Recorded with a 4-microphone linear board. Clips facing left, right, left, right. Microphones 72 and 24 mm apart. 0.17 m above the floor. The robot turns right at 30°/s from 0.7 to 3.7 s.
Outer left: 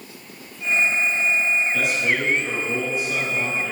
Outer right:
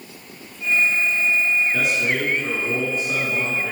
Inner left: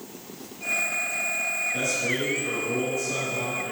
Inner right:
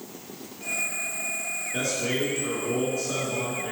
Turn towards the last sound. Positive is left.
turn(degrees=-45)